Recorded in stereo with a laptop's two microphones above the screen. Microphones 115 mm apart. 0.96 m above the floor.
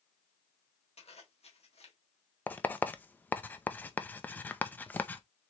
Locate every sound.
1.0 s a zipper: 65° left (ahead or behind), 1.6 m
2.5 s writing: 15° left (ahead or behind), 0.6 m